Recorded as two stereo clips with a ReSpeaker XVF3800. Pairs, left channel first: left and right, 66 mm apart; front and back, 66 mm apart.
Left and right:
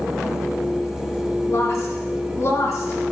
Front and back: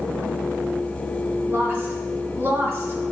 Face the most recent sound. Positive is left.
turn(degrees=130)